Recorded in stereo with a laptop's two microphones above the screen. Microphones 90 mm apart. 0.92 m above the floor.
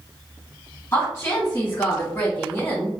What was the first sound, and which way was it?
A woman speaking, 25° left (ahead or behind).